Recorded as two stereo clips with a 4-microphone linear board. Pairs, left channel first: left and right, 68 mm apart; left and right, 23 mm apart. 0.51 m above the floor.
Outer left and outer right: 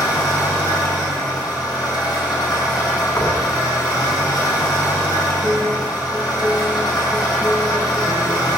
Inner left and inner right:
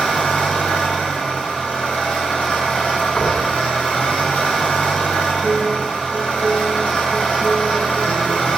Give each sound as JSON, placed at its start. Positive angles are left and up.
{"t": 0.0, "sound": "an engine running", "side_deg": 80, "distance_m": 7.5}
{"t": 3.2, "sound": "knocking", "side_deg": 55, "distance_m": 4.0}
{"t": 5.4, "sound": "a piano", "side_deg": 15, "distance_m": 5.5}